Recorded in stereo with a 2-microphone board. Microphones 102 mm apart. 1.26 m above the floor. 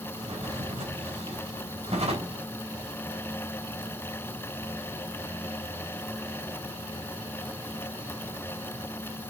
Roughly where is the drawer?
Right.